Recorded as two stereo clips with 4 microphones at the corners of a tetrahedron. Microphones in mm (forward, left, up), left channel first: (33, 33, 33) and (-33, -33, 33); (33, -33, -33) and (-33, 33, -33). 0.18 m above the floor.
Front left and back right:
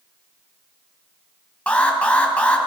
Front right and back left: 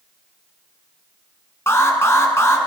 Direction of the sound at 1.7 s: 20° right.